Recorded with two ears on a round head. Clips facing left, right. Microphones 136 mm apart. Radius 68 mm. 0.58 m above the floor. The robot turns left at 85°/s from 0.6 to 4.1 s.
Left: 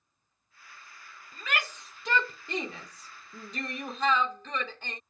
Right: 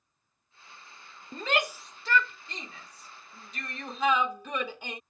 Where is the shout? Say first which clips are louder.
Right 6 dB; 35° right (ahead or behind); by 5.0 s 10° right (ahead or behind).